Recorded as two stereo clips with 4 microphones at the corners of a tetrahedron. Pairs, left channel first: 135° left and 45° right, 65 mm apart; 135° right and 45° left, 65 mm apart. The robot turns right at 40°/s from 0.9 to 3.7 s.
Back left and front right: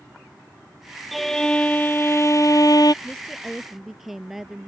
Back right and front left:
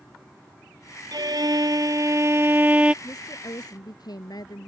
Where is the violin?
45° left; by 2.9 s 115° left.